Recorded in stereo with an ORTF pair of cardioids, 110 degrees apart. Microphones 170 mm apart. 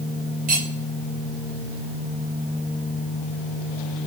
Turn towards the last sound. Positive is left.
turn(degrees=-55)